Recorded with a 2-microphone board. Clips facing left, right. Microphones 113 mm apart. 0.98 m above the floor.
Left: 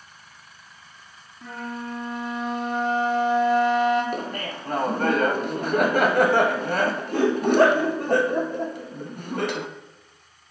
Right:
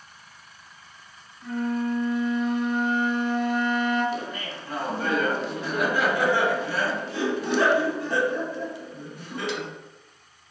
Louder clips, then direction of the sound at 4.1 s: Left 2 dB; 45° left (ahead or behind).